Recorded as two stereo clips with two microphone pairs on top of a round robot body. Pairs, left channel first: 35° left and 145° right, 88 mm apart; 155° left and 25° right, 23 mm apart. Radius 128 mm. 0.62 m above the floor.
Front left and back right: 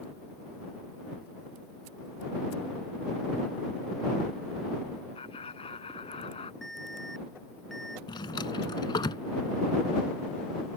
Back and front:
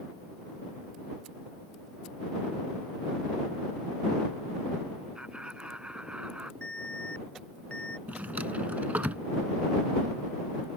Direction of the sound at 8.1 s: 5° right.